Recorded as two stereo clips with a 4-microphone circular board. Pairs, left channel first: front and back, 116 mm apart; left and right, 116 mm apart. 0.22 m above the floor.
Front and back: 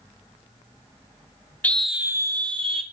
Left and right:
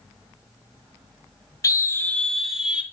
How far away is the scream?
About 1.1 m.